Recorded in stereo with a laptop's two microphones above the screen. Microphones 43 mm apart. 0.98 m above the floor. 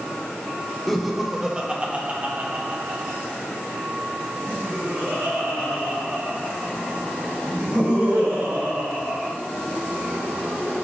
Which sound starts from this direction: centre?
Laughter, at 0.9 s.